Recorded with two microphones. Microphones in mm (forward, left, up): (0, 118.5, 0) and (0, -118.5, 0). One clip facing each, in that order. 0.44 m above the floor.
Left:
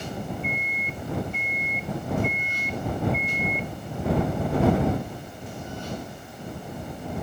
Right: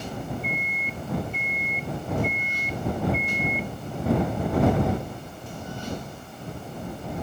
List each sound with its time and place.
0.4 s a microwave: 35° right (ahead or behind)